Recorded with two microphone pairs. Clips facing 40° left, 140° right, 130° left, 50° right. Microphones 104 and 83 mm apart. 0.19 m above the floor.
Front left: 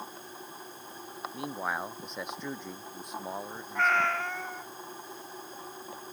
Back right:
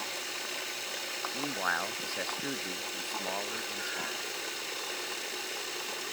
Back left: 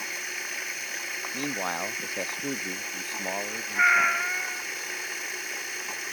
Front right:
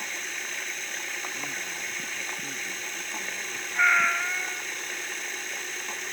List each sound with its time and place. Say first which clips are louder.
0.0 s running water: back right 3 dB, even; 145° right
1.3 s a man speaking: even, back left 6 dB; 135° left
3.8 s a cat meowing: front left 12 dB, back left 1 dB; 45° left